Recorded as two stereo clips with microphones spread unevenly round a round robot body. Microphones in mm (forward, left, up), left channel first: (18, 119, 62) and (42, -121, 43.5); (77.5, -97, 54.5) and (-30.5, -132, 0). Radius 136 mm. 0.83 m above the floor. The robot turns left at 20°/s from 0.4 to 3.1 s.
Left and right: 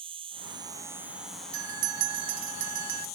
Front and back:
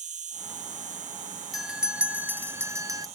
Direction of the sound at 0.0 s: 155° right.